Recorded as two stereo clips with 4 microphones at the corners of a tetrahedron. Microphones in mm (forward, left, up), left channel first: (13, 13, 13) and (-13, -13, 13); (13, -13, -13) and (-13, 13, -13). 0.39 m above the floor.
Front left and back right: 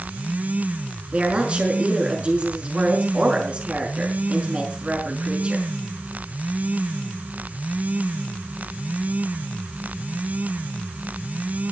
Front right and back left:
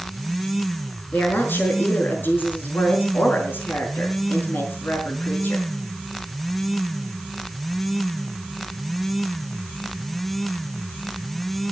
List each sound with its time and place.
1.1 s a woman speaking: 75° right, 6.5 m